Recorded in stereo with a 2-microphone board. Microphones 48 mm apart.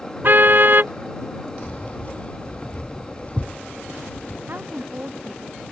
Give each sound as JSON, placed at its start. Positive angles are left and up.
{"t": 0.2, "sound": "a car horn", "side_deg": -45}
{"t": 1.6, "sound": "keys jangling", "side_deg": 30}
{"t": 4.5, "sound": "a woman speaking", "side_deg": -40}